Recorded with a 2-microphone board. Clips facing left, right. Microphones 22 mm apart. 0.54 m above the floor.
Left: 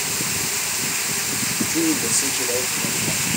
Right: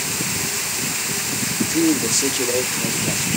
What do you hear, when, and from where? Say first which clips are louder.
1.7 s a man speaking: right 4 dB; centre (ahead or behind), 0.7 m; by 3.3 s 50° right (ahead or behind), 1.9 m